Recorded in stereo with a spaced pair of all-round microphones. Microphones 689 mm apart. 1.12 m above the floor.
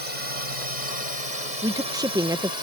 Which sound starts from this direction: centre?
A woman speaking, at 1.6 s.